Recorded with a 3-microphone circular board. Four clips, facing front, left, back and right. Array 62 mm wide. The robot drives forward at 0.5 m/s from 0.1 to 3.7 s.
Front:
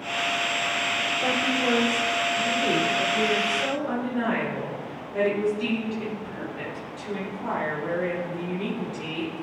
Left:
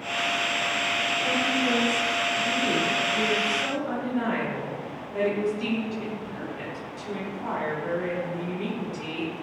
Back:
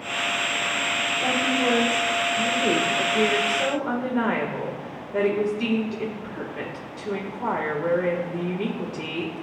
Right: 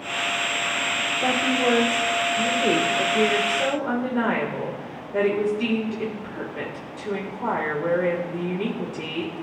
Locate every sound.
1.2 s a woman speaking: 80° right, 1.5 m; by 9.4 s 130° right, 1.8 m